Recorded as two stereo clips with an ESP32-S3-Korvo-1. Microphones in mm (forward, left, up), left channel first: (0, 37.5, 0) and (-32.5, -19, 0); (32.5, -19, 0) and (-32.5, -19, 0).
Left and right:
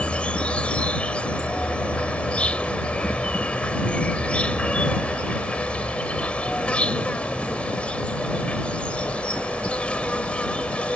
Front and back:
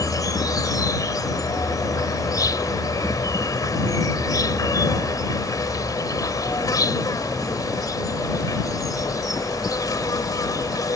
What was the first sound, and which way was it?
An insect, 10° right.